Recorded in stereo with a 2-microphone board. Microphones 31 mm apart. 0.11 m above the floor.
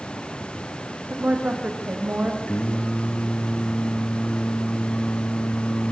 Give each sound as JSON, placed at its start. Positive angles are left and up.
{"t": 1.1, "sound": "a woman speaking", "side_deg": -75, "distance_m": 5.0}
{"t": 2.5, "sound": "singing", "side_deg": 55, "distance_m": 3.0}